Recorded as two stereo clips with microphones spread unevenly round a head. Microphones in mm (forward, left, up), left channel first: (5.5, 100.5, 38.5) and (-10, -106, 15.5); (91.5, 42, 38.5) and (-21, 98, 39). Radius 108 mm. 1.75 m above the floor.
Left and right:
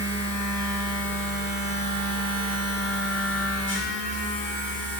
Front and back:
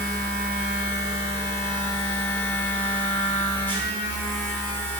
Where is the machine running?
50° left, 4 m.